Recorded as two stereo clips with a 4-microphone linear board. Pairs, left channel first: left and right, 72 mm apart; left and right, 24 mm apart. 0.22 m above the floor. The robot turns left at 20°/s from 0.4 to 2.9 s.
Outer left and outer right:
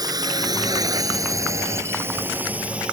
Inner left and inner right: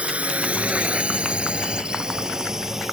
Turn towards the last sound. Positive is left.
turn(degrees=-15)  # may be behind; listen again after turning